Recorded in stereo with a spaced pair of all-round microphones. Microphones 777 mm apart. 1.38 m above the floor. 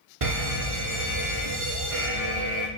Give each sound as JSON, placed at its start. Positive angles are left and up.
{"t": 0.2, "sound": "a fire alarm", "side_deg": -40, "distance_m": 2.0}